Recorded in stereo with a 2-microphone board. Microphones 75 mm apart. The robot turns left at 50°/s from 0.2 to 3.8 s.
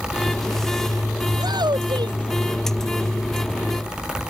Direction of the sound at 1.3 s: 55° right (ahead or behind).